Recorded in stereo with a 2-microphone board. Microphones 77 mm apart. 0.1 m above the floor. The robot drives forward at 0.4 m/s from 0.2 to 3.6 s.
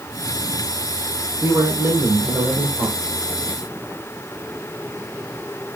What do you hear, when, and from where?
1.4 s a man speaking: 30° right (ahead or behind), 4.5 m; by 3.0 s 35° right (ahead or behind), 4 m